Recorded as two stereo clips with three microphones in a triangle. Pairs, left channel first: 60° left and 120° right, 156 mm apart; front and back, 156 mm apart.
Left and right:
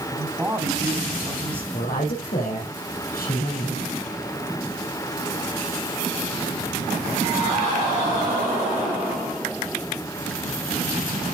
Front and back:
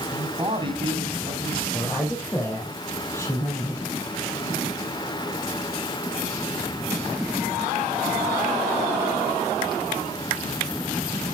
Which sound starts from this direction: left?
A woman speaking, at 1.7 s.